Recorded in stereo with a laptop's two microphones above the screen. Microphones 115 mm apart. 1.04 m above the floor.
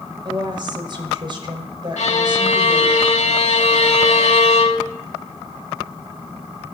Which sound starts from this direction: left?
A violin, at 2.0 s.